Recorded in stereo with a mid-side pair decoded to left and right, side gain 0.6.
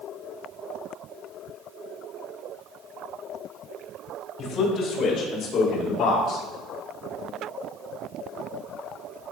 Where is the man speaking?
55° left, 4 m; by 6.4 s 70° left, 6.5 m.